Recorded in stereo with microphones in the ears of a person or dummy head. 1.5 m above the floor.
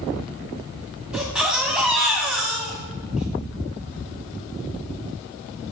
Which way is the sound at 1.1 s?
5° right (ahead or behind).